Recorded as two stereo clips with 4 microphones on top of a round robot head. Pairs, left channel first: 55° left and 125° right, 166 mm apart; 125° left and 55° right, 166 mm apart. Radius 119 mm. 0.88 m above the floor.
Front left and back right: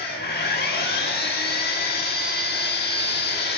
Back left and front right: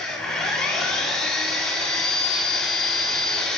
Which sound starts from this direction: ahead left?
An engine running, at 0.0 s.